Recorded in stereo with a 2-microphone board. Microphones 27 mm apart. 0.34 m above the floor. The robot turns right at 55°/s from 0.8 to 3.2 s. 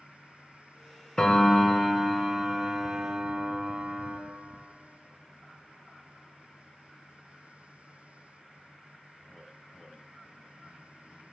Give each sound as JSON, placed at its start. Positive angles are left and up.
{"t": 1.2, "sound": "a piano", "azimuth_deg": 145, "distance_m": 1.1}